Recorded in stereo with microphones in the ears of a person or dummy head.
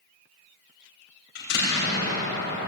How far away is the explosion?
About 6.5 m.